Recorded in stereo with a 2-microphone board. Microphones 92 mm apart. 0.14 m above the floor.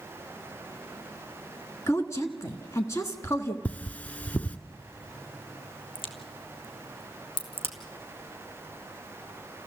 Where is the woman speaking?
30° left (ahead or behind), 1.6 m.